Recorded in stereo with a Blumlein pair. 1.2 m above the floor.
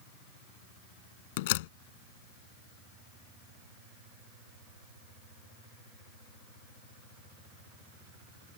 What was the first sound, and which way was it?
A door slam, 50° left.